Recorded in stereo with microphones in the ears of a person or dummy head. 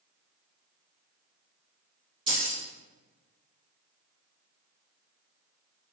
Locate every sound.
2.3 s keys jangling: 30° right (ahead or behind), 1.2 m